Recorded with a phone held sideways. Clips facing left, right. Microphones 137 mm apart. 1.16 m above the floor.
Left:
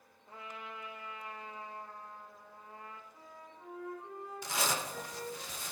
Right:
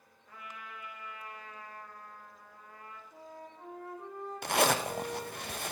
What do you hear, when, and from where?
0.3 s a trumpet: 30° left (ahead or behind), 1.4 m
3.1 s a flute: 75° right (ahead or behind), 5 m
4.4 s a zipper: 65° right (ahead or behind), 0.5 m